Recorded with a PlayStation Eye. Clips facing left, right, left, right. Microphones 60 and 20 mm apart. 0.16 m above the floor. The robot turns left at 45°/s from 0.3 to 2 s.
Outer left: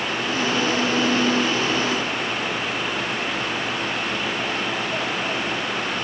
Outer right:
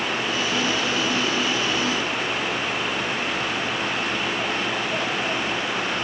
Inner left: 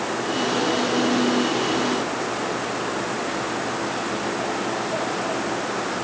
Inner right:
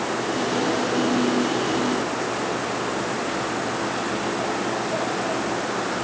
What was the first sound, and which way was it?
Only background noise.